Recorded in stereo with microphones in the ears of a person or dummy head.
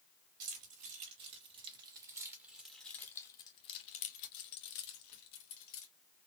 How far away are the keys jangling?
About 1.7 m.